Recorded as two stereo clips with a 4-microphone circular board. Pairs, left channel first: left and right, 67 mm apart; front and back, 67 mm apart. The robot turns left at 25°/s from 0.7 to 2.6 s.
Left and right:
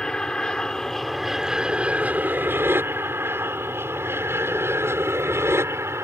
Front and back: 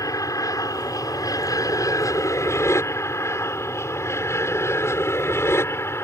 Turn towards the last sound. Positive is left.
turn(degrees=-45)